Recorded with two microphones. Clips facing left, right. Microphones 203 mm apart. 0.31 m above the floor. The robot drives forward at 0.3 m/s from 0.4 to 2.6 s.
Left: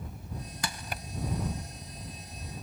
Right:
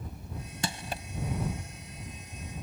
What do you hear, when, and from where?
0.6 s crushing: 30° right (ahead or behind)